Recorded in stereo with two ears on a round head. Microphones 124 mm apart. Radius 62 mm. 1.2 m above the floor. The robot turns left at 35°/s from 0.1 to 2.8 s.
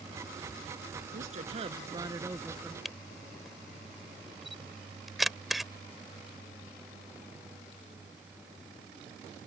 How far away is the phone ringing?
I don't hear a phone ringing.